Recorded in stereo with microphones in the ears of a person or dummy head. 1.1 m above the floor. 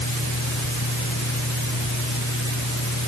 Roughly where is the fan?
Left.